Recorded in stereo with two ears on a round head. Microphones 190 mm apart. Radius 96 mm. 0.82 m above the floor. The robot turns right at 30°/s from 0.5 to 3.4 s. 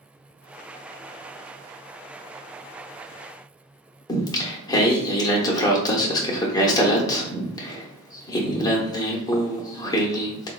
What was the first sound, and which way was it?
Singing, 20° left (ahead or behind).